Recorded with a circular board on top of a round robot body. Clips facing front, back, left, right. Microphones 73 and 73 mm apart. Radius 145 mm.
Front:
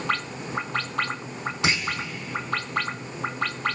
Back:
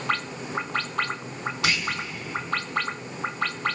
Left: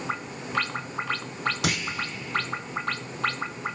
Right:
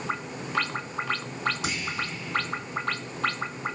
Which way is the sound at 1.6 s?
70° left.